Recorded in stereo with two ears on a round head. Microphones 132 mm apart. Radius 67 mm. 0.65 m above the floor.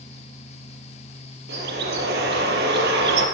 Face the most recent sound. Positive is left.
turn(degrees=-85)